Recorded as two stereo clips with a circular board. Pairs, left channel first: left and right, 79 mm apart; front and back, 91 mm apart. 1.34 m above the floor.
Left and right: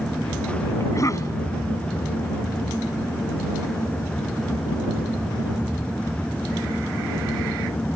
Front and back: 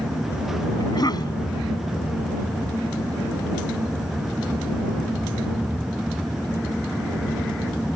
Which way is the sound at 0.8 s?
45° left.